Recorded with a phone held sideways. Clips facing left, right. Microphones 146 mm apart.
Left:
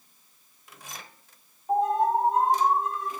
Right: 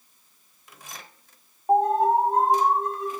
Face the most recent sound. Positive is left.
turn(degrees=-55)  # may be behind; listen again after turning